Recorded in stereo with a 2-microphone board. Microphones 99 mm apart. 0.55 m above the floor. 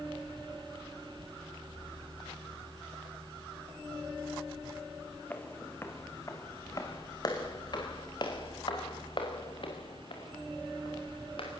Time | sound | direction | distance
5.3 | footsteps | 20° left (ahead or behind) | 2.5 m